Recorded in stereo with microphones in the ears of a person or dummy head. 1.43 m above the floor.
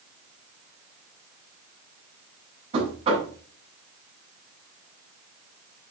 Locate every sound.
2.7 s knocking: 30° right (ahead or behind), 8 m